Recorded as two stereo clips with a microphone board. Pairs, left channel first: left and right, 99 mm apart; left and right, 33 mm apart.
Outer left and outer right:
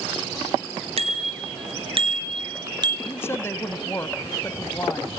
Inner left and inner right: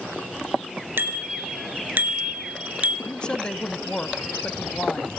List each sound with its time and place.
1.0 s a bicycle bell: 75° right (ahead or behind), 3.5 m; by 3.0 s 45° right (ahead or behind), 3 m
3.1 s a woman speaking: 25° left (ahead or behind), 1.4 m